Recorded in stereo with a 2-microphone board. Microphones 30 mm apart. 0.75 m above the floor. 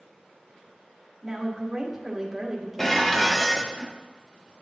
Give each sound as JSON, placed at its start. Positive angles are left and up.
{"t": 1.2, "sound": "a woman speaking", "side_deg": -5, "distance_m": 2.0}
{"t": 2.8, "sound": "dishes clattering", "side_deg": 10, "distance_m": 0.6}